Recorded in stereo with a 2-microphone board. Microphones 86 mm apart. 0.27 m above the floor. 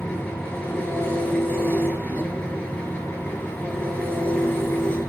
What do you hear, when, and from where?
0.0 s an engine running: 20° left (ahead or behind), 4 m